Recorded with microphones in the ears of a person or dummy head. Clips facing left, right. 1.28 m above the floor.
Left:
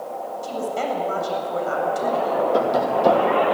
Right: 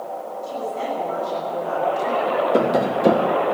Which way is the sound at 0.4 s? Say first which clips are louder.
Left 2 dB; 75° left (ahead or behind).